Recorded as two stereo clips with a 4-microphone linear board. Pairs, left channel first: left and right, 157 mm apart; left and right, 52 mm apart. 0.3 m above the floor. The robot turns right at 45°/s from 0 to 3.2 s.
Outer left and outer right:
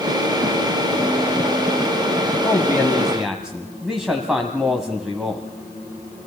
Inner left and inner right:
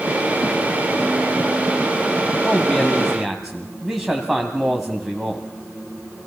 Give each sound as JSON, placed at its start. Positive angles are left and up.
{"t": 2.4, "sound": "a man speaking", "azimuth_deg": 150, "distance_m": 1.7}